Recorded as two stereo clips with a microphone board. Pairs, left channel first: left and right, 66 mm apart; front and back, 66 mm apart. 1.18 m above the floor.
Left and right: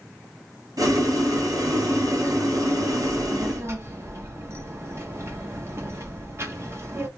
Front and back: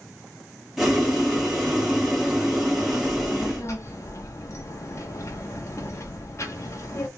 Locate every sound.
0.8 s boiling: 90° right, 1.9 m
3.0 s a child speaking: 45° right, 1.5 m